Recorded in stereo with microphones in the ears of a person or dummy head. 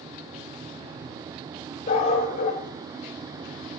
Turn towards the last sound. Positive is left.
turn(degrees=45)  # may be behind; listen again after turning